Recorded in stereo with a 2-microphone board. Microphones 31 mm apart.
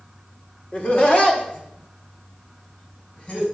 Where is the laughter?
45° left (ahead or behind), 1.6 m; by 3.5 s 50° left (ahead or behind), 3.5 m.